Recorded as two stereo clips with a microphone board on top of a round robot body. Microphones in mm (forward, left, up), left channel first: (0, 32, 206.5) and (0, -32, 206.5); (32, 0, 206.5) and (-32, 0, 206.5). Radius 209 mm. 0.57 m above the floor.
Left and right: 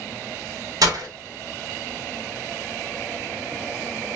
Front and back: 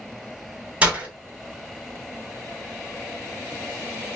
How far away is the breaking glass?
About 0.9 m.